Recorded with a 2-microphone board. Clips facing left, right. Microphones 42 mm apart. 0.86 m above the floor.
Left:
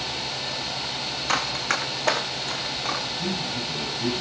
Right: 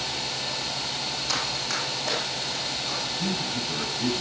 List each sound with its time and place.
1.3 s running footsteps: 35° left (ahead or behind), 1.8 m; by 3.0 s 55° left (ahead or behind), 3 m
3.2 s a man speaking: 70° right (ahead or behind), 6 m